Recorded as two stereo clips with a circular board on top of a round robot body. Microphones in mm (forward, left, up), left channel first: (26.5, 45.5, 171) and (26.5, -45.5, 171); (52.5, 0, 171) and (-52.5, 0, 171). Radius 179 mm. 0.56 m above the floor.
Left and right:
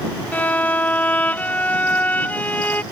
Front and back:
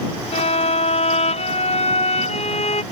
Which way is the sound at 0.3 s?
15° left.